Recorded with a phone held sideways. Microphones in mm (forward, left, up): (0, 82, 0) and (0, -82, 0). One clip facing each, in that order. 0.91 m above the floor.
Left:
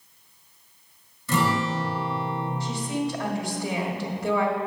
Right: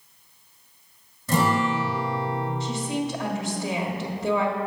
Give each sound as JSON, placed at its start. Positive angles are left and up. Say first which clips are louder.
{"t": 1.3, "sound": "a guitar", "louder": "right 2 dB", "side_deg": -45, "distance_m": 1.8}
{"t": 2.6, "sound": "a woman speaking", "louder": "even", "side_deg": -20, "distance_m": 1.4}